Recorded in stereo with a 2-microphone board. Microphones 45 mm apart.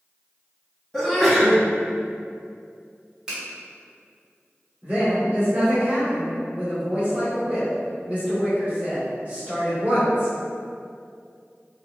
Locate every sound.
0.9 s a sneeze: 5° left (ahead or behind), 0.8 m
3.3 s a finger snap: 15° right (ahead or behind), 1.6 m
4.8 s a woman speaking: 30° right (ahead or behind), 1.5 m